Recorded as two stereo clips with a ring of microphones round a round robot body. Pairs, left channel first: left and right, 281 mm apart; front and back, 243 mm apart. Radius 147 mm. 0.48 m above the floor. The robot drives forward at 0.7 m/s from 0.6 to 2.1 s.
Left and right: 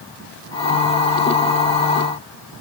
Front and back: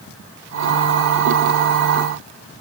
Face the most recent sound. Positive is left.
No sound to turn to.